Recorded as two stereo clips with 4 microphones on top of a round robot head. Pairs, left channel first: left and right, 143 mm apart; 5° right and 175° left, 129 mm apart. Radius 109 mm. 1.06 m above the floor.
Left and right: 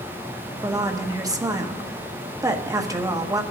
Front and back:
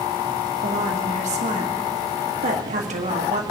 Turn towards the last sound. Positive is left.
turn(degrees=-155)